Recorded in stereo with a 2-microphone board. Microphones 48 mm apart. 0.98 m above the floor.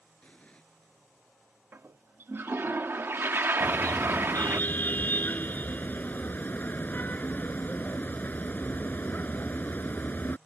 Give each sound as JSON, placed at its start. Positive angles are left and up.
{"t": 0.2, "sound": "an explosion", "side_deg": 25}
{"t": 1.7, "sound": "a toilet flushing", "side_deg": -50}
{"t": 3.6, "sound": "a car horn", "side_deg": 40}